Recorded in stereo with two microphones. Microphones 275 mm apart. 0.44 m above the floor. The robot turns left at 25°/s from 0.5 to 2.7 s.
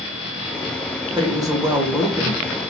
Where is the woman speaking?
155° right, 1.0 m; by 2.6 s 170° left, 1.0 m.